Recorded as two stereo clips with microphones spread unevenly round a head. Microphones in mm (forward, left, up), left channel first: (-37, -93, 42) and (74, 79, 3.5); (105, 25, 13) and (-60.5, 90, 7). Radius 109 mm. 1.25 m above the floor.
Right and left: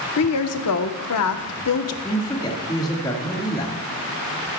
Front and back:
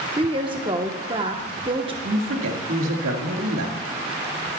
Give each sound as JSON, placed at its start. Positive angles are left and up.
{"t": 0.2, "sound": "a woman speaking", "azimuth_deg": -135, "distance_m": 1.0}
{"t": 2.0, "sound": "a man speaking", "azimuth_deg": 165, "distance_m": 1.8}